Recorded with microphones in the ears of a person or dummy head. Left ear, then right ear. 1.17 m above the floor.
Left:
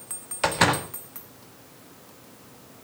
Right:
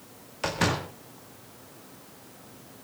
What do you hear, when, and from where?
0.4 s a door slam: 30° left (ahead or behind), 1.9 m